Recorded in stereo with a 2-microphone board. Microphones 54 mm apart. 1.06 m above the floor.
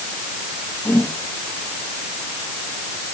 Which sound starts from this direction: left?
A whoosh, at 0.8 s.